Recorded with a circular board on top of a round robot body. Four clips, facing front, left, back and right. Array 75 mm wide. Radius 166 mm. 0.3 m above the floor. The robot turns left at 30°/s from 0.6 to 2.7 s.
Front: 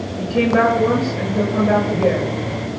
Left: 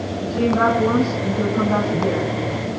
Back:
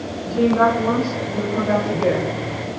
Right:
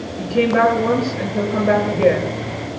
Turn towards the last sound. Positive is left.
turn(degrees=-115)